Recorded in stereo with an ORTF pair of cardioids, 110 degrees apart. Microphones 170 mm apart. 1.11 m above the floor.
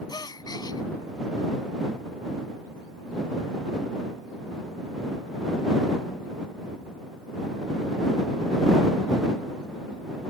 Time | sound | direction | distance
0.1 | a gasp | 25° left | ?